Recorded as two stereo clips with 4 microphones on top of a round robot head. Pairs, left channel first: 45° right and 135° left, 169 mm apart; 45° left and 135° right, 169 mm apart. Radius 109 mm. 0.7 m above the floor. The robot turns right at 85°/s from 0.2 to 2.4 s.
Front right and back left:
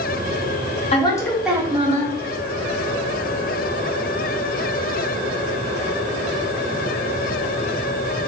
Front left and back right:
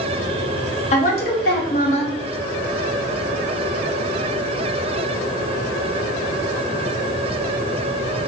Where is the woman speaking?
Straight ahead, 1.3 m; by 2.1 s 105° left, 1.3 m.